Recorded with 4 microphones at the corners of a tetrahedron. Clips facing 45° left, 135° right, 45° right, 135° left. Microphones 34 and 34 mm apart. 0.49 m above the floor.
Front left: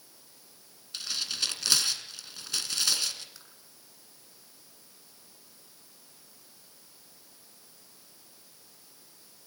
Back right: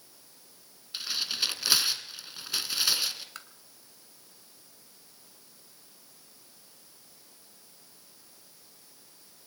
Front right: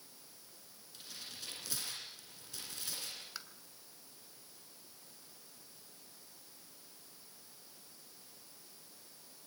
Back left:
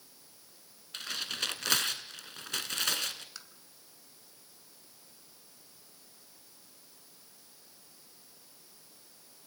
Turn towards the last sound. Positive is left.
turn(degrees=-120)